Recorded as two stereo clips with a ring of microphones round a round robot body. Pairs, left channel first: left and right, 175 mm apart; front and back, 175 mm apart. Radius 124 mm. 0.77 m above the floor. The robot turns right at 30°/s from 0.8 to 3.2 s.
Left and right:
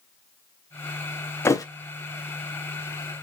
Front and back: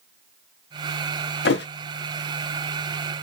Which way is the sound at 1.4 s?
15° left.